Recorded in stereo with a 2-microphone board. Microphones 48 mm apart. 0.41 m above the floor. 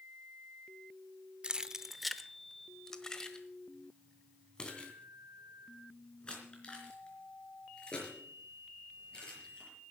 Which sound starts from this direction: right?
Keys jangling, at 1.4 s.